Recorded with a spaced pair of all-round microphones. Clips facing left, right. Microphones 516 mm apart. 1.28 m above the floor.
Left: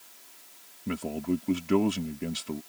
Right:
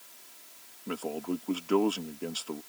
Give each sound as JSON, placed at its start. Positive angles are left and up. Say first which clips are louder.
{"t": 0.9, "sound": "a man speaking", "louder": "left 4 dB", "side_deg": 45}